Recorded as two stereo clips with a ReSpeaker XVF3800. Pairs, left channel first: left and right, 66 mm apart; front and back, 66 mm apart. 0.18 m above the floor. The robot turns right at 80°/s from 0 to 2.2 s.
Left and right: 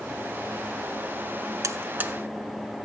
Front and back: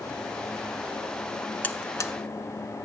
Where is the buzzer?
60° right, 0.7 m; by 2.1 s 20° right, 0.7 m.